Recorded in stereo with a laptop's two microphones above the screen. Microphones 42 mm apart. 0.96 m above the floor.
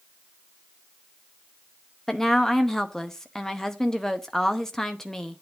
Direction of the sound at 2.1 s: 10° left (ahead or behind).